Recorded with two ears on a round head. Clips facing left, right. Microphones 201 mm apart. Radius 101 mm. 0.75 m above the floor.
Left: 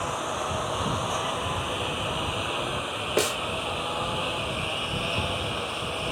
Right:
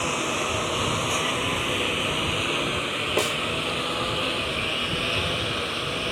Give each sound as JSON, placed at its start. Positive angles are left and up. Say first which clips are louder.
{"t": 0.0, "sound": "a lawn mower", "louder": "right 3 dB", "side_deg": -40}
{"t": 3.2, "sound": "a snare drum", "louder": "left 1 dB", "side_deg": 10}